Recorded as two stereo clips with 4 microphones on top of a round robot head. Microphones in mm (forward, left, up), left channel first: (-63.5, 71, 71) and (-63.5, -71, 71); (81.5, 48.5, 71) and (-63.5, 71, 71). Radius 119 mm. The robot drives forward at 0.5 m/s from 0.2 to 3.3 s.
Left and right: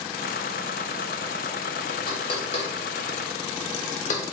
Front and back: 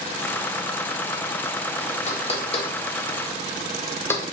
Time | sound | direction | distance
2.1 | knocking | 35° left | 1.1 m